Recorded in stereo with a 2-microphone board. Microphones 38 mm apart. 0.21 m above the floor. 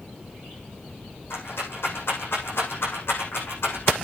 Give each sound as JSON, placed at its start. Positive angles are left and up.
{"t": 1.3, "sound": "a rattle", "side_deg": 85, "distance_m": 7.5}